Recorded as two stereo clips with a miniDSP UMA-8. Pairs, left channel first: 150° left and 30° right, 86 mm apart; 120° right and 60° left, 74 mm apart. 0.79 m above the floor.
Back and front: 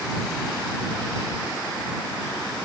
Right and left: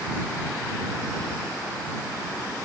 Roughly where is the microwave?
I don't hear a microwave.